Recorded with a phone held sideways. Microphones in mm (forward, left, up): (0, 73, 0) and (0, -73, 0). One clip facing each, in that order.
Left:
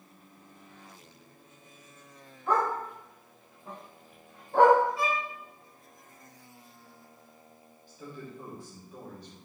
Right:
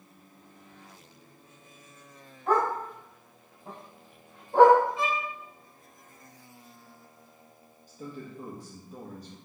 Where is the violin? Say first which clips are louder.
Even; 25° right (ahead or behind), 1.0 m.